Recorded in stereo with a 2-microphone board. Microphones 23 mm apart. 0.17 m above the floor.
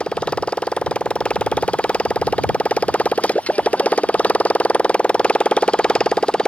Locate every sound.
0.0 s a motorcycle: 50° left (ahead or behind); by 6.5 s 40° left (ahead or behind)